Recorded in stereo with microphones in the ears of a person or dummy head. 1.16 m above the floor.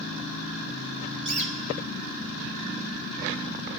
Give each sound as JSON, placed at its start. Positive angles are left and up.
{"t": 1.2, "sound": "a bird", "side_deg": -40, "distance_m": 2.5}